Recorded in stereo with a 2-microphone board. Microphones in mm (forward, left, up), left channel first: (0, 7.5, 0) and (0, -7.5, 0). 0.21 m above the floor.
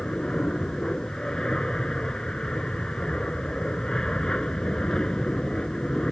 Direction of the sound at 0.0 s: 60° left (ahead or behind).